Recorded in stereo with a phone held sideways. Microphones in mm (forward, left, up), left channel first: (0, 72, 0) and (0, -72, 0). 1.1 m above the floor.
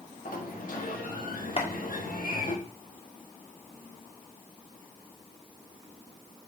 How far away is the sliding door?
About 1.6 m.